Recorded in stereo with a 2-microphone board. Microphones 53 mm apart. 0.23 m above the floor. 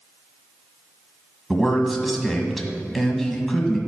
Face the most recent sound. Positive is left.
turn(degrees=5)  # may be behind; listen again after turning